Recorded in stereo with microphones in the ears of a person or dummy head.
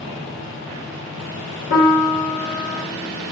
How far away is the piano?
About 1.4 m.